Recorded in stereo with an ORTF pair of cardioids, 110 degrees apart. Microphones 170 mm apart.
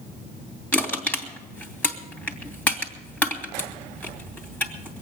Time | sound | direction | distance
0.7 | crushing | 10° left | 2.5 m